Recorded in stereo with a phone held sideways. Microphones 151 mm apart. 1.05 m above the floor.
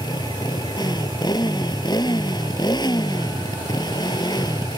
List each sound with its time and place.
0.0 s a motorcycle: 30° left (ahead or behind)